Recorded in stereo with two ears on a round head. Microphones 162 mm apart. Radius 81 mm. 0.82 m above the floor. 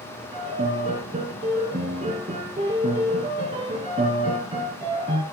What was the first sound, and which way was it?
A piano, 30° right (ahead or behind).